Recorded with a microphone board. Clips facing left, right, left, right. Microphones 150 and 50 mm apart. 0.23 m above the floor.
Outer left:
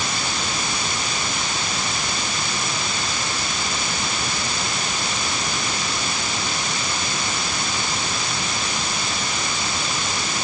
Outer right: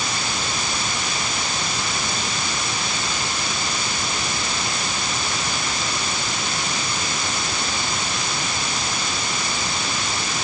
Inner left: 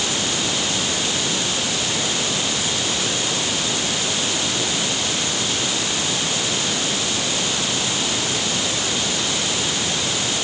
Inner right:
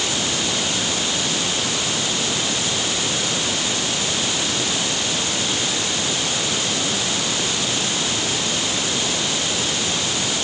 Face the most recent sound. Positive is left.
No sound to turn to.